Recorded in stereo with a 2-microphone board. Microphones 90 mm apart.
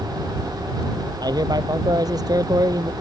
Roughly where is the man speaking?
Right.